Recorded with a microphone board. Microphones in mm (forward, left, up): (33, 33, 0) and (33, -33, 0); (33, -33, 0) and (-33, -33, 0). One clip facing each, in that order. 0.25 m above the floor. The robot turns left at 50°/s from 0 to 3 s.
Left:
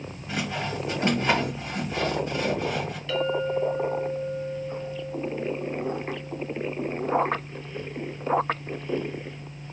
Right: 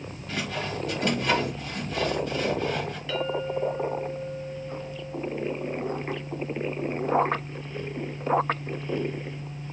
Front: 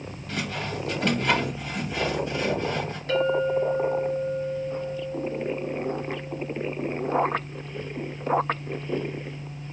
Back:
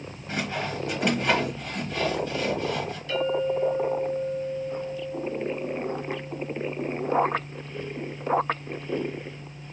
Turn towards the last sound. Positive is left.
turn(degrees=-10)